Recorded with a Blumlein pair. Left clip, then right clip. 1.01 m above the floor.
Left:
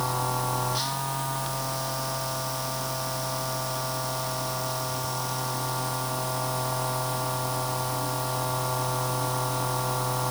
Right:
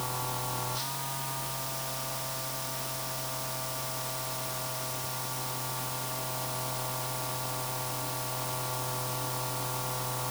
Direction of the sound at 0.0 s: 70° left.